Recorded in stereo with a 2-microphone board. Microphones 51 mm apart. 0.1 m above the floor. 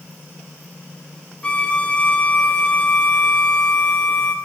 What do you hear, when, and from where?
1.4 s a violin: 25° left (ahead or behind), 2.5 m